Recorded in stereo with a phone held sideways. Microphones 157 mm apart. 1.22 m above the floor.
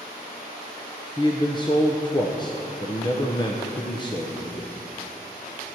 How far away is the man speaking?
About 0.8 m.